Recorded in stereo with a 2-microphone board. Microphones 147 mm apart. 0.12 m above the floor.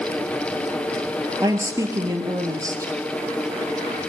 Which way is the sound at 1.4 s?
25° right (ahead or behind).